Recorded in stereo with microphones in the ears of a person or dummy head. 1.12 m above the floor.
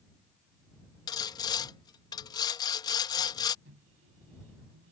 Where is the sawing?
25° left (ahead or behind).